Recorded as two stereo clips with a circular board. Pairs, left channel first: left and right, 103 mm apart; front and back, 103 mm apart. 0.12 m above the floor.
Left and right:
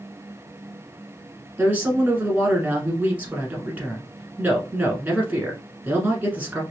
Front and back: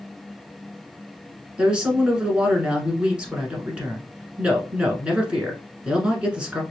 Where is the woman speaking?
125° right, 1.1 m.